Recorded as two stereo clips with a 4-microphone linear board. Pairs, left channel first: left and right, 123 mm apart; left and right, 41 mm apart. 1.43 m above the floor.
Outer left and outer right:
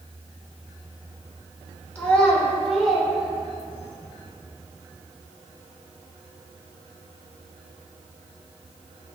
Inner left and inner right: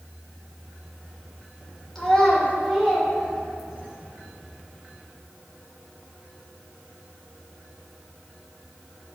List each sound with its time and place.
1.9 s a child speaking: 10° left (ahead or behind), 3 m; by 4.0 s 5° right (ahead or behind), 4.5 m